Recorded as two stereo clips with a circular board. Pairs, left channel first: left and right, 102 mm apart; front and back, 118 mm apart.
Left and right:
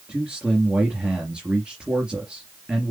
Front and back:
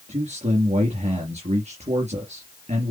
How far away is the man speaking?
About 4 m.